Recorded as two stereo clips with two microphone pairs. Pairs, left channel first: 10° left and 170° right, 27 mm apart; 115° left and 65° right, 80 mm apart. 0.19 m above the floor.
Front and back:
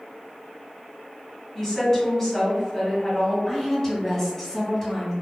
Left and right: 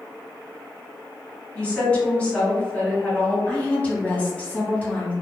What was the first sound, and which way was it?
A woman speaking, 65° left.